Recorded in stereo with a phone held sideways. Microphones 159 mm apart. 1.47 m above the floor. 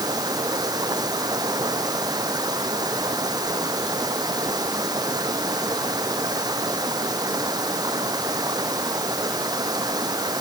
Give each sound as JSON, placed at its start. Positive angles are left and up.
{"t": 0.0, "sound": "running water", "side_deg": -25}